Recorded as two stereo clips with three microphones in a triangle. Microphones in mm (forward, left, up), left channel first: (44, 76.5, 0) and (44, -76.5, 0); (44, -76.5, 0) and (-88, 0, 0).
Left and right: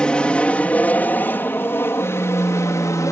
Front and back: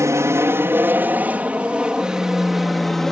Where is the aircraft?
160° left; by 3.1 s 55° left.